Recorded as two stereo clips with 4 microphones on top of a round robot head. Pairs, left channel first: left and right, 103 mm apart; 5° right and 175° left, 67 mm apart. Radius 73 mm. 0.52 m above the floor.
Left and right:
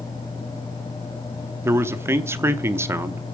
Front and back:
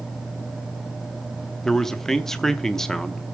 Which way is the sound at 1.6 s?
80° right.